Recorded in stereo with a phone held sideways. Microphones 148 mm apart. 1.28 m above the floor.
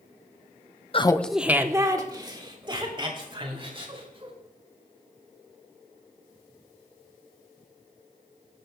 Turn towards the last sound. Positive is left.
turn(degrees=-35)  # may be behind; listen again after turning